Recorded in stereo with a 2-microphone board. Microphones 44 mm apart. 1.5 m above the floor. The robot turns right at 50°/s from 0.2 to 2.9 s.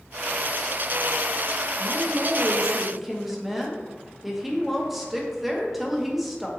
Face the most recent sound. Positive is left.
turn(degrees=-5)